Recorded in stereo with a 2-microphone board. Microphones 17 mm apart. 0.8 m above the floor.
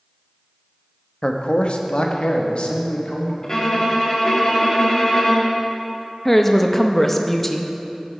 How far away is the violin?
About 1.9 m.